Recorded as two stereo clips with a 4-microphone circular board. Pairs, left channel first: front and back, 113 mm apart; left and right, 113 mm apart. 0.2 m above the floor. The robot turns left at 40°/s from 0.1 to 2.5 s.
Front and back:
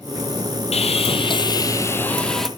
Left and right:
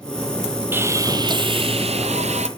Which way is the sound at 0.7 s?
20° right.